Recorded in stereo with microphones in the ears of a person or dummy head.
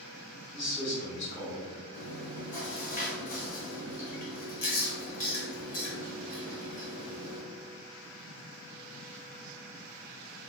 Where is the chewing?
40° left (ahead or behind), 0.9 m.